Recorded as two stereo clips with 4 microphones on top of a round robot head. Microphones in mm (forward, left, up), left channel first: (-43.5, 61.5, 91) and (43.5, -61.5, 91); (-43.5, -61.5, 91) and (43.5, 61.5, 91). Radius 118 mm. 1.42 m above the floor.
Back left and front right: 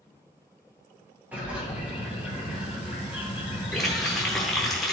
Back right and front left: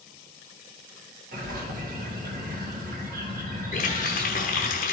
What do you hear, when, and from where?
1.3 s a bird: 25° left, 1.8 m
3.7 s a running tap: 145° right, 0.7 m